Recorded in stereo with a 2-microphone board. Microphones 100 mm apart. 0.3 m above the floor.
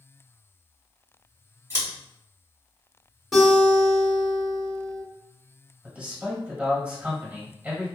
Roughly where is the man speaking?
Centre.